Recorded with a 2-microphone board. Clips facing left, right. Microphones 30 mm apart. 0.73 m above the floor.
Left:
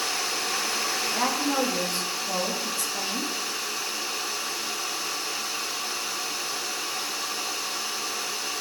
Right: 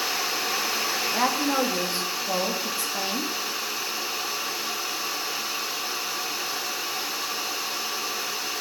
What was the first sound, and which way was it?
A woman speaking, 20° right (ahead or behind).